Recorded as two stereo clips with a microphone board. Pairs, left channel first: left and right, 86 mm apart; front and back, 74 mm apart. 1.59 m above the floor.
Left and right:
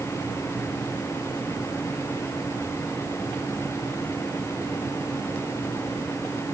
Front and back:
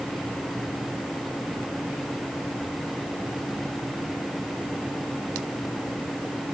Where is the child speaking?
I don't hear a child speaking.